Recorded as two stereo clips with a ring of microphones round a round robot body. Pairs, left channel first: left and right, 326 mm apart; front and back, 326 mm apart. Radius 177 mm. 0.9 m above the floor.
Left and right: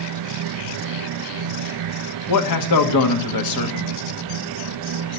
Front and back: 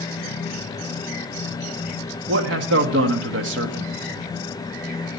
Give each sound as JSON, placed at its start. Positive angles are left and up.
{"t": 2.3, "sound": "a man speaking", "azimuth_deg": 125, "distance_m": 1.4}